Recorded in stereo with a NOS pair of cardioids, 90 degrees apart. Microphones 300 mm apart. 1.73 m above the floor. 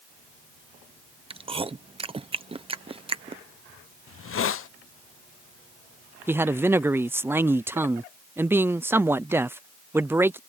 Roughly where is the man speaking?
Ahead.